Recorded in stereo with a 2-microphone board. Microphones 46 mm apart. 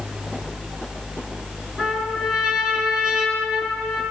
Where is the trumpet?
15° right (ahead or behind), 4 m.